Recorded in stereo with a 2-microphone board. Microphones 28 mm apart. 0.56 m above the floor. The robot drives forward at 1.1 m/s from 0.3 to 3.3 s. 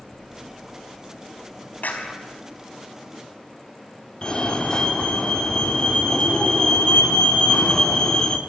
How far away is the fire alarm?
About 2 m.